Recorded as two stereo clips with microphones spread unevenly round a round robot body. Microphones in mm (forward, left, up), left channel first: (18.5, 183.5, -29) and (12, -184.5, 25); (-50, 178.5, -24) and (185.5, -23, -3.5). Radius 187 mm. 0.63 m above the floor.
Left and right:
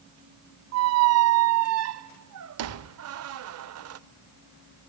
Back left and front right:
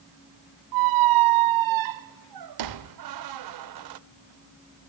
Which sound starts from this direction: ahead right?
A squeak, at 0.7 s.